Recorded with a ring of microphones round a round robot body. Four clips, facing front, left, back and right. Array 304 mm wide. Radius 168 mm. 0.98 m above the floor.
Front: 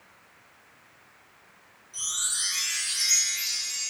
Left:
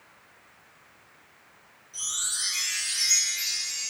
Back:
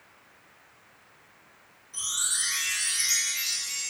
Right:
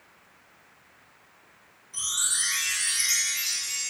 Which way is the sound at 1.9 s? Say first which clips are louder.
Right 4 dB, back 2 dB; 115° right.